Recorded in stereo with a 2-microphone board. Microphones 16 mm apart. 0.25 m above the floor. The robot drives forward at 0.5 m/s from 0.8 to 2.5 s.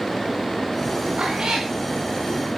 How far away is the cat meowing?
About 6 m.